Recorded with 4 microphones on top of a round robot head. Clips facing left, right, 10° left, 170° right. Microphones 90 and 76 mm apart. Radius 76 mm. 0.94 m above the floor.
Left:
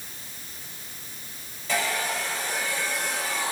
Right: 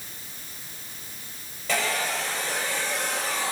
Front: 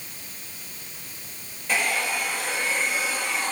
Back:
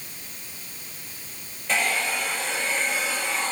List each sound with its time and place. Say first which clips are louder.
1.7 s a hair dryer: even, even; 70° right, 7 m